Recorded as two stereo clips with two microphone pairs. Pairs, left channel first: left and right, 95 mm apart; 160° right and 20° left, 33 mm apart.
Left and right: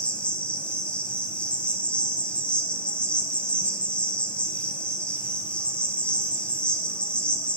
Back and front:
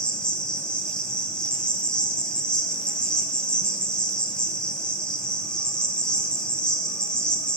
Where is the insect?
155° left, 1.0 m.